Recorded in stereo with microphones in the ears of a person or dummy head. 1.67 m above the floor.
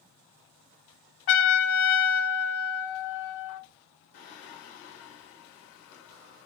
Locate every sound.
1.3 s a trumpet: 50° left (ahead or behind), 0.6 m
4.1 s singing: 55° left (ahead or behind), 1.1 m